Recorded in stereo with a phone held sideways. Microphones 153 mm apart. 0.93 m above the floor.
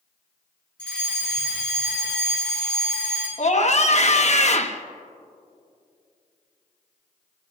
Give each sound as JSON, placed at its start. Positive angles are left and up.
{"t": 0.8, "sound": "a fire alarm", "side_deg": 5, "distance_m": 6.0}
{"t": 3.4, "sound": "a scream", "side_deg": 50, "distance_m": 1.1}